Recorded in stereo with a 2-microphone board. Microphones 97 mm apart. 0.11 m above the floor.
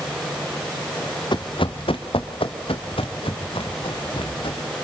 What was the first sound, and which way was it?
Running footsteps, 55° left (ahead or behind).